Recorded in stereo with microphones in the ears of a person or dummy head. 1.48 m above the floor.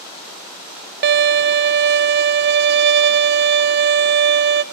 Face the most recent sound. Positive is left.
turn(degrees=-50)  # may be behind; listen again after turning